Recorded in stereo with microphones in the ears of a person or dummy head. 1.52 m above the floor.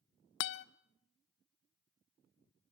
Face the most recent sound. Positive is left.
turn(degrees=55)  # may be behind; listen again after turning